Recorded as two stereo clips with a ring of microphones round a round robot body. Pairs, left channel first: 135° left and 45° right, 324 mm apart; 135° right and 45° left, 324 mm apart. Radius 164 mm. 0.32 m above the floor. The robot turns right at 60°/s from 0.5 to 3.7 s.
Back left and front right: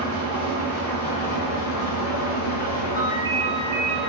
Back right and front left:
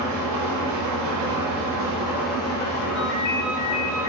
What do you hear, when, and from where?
0.0 s an engine running: 30° left, 1.2 m; by 4.1 s 140° right, 1.2 m
3.0 s a ringtone: 125° right, 0.8 m; by 4.1 s 80° right, 0.8 m